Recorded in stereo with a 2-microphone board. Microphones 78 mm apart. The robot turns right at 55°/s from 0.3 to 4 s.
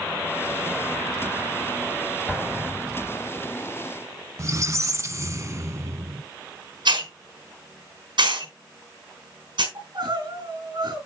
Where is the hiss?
75° right (ahead or behind), 4 m.